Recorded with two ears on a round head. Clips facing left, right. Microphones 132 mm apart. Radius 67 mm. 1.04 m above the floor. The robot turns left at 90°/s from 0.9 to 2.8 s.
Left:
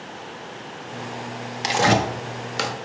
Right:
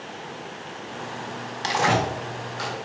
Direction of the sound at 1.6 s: 20° left (ahead or behind).